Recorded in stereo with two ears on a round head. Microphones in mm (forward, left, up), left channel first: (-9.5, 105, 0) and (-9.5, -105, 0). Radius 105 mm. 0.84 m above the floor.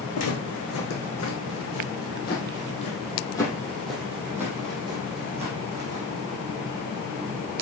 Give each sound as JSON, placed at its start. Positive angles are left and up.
{"t": 0.1, "sound": "footsteps", "side_deg": 70, "distance_m": 3.5}